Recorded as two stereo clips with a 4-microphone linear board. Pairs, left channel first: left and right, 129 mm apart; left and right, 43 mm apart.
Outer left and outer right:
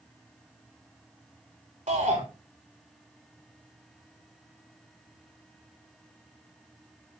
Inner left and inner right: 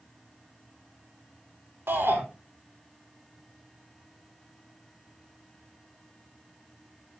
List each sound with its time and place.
1.9 s a shout: 70° right (ahead or behind), 4 m